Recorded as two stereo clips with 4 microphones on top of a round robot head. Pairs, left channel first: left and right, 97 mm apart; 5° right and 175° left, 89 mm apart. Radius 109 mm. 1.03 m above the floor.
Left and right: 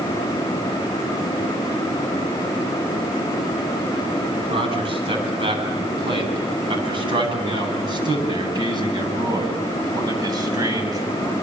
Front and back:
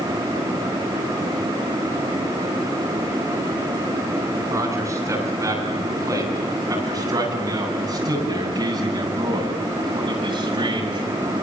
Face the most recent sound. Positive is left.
turn(degrees=-145)